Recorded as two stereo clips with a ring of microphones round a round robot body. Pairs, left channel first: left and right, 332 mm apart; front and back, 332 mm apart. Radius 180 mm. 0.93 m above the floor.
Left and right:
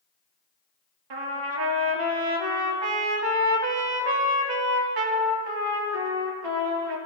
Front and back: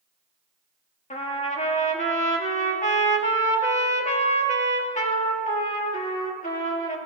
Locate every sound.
1.1 s a trumpet: 70° right, 2 m